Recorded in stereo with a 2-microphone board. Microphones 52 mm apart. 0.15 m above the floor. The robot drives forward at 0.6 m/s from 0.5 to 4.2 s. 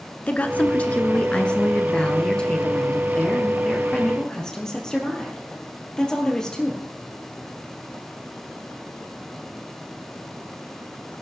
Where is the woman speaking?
25° left (ahead or behind), 1.5 m; by 6.8 s 10° left (ahead or behind), 3.5 m.